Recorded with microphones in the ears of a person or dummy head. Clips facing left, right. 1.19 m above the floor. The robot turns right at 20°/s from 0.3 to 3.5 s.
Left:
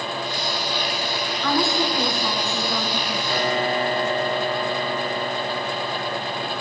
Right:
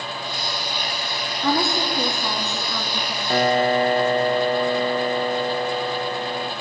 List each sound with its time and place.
1.4 s a woman speaking: 20° right, 0.7 m; by 3.2 s 15° left, 0.7 m
3.3 s a piano: 40° right (ahead or behind), 1.0 m; by 6.5 s 35° right (ahead or behind), 1.0 m